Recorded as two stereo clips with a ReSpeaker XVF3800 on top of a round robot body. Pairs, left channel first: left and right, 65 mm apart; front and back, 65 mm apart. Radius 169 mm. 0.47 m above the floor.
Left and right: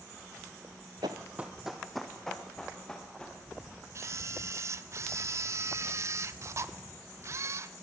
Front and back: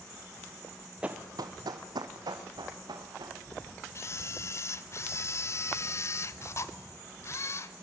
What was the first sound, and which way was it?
Running footsteps, 105° right.